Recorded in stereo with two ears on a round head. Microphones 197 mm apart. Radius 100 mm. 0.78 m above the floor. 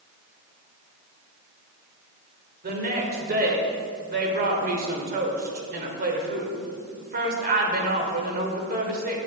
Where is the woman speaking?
45° right (ahead or behind), 2 m.